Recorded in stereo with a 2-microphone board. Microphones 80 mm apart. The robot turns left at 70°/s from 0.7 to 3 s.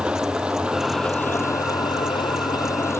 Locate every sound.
0.0 s an engine running: 165° right; by 3.0 s 35° left